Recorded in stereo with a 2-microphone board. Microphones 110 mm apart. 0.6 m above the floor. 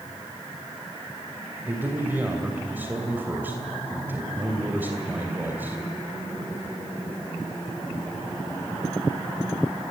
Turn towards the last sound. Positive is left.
turn(degrees=-15)  # may be behind; listen again after turning